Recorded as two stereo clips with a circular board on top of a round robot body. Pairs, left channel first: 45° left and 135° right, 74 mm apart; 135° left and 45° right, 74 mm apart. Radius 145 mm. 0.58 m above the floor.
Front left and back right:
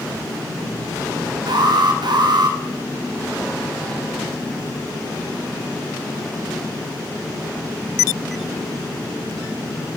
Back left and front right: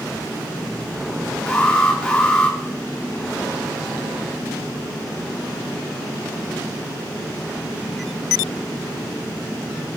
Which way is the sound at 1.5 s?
150° right.